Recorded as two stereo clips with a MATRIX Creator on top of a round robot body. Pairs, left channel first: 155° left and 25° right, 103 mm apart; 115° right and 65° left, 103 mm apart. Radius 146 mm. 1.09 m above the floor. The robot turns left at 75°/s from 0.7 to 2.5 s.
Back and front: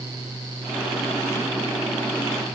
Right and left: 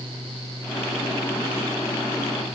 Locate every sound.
Only background noise.